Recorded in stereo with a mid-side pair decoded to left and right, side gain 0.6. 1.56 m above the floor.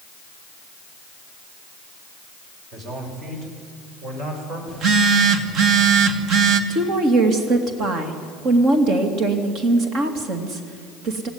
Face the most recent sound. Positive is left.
turn(degrees=-60)